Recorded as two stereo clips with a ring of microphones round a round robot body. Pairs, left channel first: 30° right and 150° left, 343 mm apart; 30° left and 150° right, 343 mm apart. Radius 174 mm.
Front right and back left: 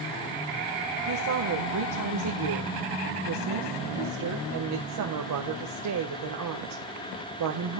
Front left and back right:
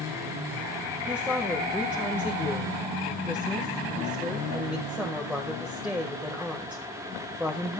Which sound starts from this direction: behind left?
A woman speaking, at 1.1 s.